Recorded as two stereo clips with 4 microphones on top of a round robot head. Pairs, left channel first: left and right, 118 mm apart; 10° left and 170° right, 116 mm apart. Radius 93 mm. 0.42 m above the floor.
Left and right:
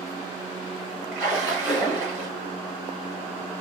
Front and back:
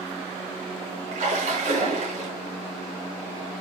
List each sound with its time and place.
1.1 s a splash: 170° right, 7 m